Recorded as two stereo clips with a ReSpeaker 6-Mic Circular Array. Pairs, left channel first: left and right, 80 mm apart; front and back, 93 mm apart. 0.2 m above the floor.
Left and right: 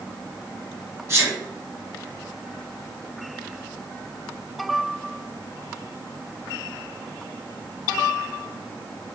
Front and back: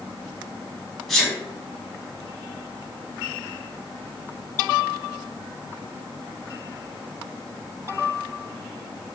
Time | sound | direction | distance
1.1 | a sneeze | 85° right | 1.2 m